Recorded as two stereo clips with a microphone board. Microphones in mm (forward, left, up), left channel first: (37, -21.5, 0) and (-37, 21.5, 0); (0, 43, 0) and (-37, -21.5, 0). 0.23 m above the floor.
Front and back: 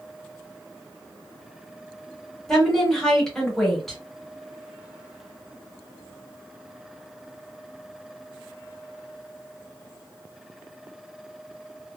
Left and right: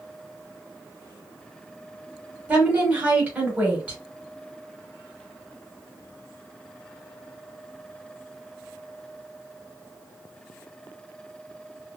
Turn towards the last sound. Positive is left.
turn(degrees=-110)